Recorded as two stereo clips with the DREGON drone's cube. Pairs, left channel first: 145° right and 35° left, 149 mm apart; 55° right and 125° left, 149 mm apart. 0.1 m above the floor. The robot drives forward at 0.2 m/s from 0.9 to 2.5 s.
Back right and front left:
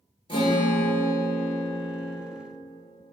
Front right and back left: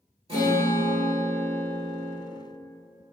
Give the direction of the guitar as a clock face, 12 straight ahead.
6 o'clock.